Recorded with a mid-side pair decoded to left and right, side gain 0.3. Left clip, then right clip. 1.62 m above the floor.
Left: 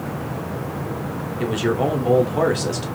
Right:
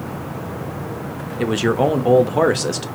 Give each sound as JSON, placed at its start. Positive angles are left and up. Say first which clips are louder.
{"t": 1.4, "sound": "a man speaking", "louder": "right 4 dB", "azimuth_deg": -55, "distance_m": 0.7}